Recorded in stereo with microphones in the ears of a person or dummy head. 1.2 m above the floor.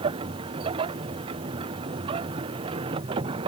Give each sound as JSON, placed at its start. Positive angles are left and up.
{"t": 0.0, "sound": "a machine running", "side_deg": -25}